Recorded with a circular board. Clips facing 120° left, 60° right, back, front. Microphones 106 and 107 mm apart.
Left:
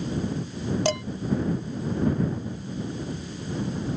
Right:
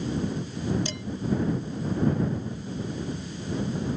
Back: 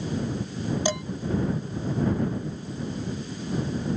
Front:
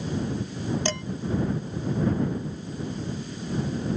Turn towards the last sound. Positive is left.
turn(degrees=105)